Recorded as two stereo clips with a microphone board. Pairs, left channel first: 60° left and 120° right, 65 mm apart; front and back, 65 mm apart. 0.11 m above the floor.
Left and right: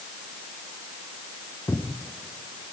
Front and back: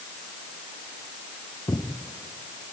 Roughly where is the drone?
No drone in this recording.